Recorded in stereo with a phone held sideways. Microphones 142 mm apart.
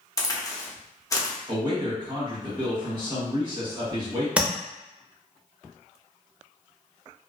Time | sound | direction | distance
0.2 | a crack | 25° left (ahead or behind) | 0.6 m
1.5 | a man speaking | 35° right (ahead or behind) | 1.2 m
4.4 | tapping | 10° right (ahead or behind) | 0.5 m